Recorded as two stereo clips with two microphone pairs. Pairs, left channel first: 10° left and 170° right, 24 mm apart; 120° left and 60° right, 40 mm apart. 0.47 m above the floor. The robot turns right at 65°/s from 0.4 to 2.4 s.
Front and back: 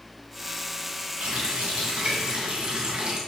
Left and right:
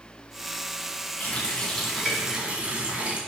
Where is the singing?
No singing in this recording.